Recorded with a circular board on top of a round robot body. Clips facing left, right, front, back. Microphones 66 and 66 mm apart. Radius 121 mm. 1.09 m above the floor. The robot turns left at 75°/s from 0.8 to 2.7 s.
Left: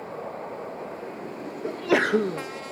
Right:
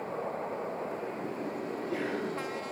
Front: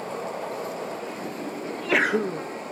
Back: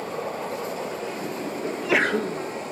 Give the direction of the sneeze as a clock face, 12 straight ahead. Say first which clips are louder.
Left 14 dB, back 1 dB; 8 o'clock.